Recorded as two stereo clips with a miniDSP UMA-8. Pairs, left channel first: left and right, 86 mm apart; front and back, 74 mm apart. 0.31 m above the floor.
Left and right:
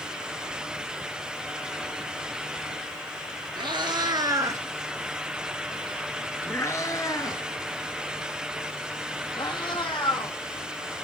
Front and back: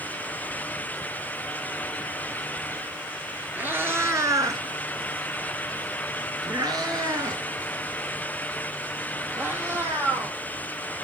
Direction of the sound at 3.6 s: 115° right.